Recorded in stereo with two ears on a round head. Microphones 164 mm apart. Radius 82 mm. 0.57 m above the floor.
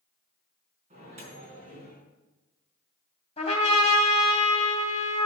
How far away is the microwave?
About 4.5 m.